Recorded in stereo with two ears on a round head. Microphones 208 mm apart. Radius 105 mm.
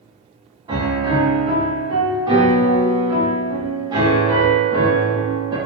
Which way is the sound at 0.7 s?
15° right (ahead or behind).